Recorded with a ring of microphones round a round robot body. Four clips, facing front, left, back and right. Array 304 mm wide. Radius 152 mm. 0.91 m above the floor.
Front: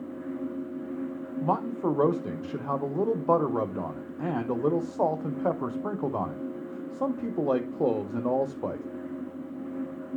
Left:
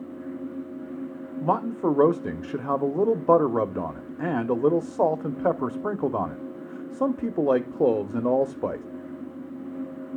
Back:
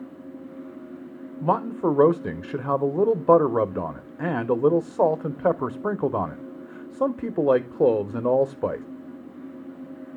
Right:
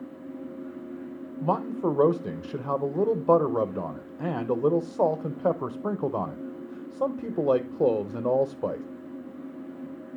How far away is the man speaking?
About 0.7 m.